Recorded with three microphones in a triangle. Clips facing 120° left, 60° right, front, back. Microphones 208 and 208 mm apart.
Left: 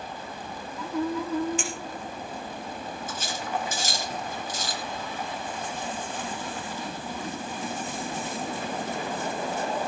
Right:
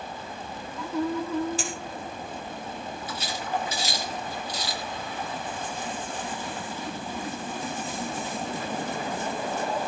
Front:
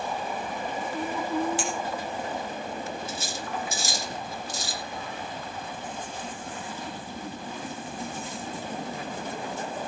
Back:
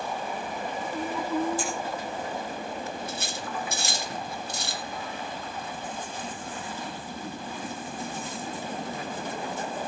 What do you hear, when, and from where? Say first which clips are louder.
1.6 s a clink: even, front 1 dB; 10° right, 4 m
3.1 s cutlery clinking: right 1 dB, front 1 dB; 160° left, 2 m